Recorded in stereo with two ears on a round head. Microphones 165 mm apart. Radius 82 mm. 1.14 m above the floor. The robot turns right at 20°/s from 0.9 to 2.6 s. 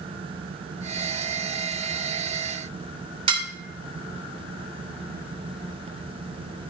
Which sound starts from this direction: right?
Dishes clattering, at 3.3 s.